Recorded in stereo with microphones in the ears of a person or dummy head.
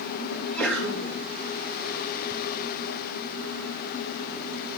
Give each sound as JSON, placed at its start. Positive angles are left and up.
{"t": 0.3, "sound": "a sneeze", "side_deg": 0, "distance_m": 2.5}